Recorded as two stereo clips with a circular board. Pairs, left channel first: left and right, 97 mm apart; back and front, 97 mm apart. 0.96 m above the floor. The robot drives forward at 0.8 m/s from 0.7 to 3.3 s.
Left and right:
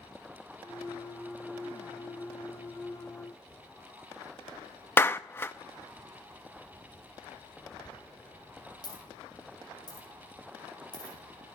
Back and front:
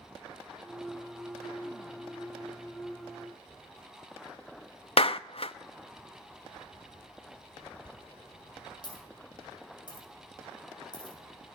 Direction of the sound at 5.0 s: 160° left.